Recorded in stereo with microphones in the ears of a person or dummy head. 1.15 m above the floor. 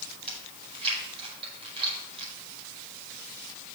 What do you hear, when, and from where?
0.3 s chewing: 35° right (ahead or behind), 5 m